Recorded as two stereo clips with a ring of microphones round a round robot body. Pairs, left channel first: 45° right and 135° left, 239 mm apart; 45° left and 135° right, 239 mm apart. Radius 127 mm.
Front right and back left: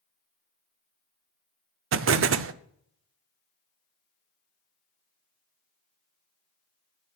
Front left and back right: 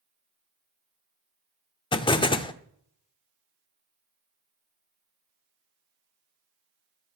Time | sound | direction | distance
1.9 | an explosion | 115° left | 0.7 m